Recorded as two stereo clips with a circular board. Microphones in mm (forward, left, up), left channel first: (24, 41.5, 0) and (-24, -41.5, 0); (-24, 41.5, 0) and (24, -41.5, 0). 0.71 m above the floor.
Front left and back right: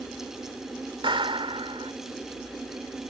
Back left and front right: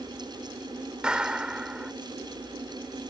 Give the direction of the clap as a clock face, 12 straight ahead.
5 o'clock.